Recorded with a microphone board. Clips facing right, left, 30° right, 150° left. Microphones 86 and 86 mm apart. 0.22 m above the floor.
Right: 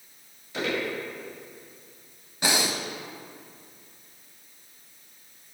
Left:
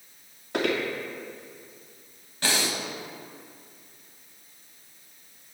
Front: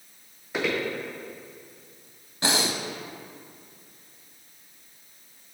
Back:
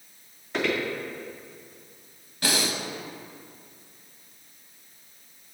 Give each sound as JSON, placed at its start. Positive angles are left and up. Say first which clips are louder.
{"t": 0.5, "sound": "footsteps", "louder": "left 3 dB, back 1 dB", "azimuth_deg": 55, "distance_m": 2.5}
{"t": 2.4, "sound": "breathing", "louder": "right 2 dB, front 1 dB", "azimuth_deg": -40, "distance_m": 0.7}